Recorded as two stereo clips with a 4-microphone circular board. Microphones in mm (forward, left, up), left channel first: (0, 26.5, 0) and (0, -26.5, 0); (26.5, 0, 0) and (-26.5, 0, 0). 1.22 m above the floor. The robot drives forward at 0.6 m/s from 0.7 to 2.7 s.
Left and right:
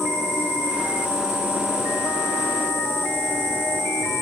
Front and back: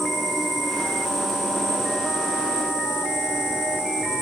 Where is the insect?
90° left, 5.5 m; by 4.2 s 105° left, 5.5 m.